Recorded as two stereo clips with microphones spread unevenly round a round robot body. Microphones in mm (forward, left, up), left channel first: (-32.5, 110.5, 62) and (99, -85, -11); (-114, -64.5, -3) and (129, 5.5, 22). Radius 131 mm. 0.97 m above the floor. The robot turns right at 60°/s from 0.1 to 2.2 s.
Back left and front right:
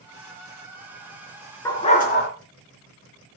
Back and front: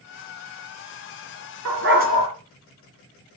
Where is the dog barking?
50° left, 3.5 m; by 2.3 s 85° left, 3.5 m.